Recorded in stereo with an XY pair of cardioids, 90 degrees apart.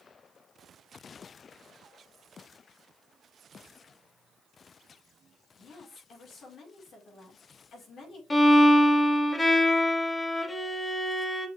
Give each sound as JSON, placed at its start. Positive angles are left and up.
{"t": 5.6, "sound": "a woman speaking", "azimuth_deg": 65, "distance_m": 6.0}
{"t": 8.3, "sound": "a violin", "azimuth_deg": 25, "distance_m": 2.5}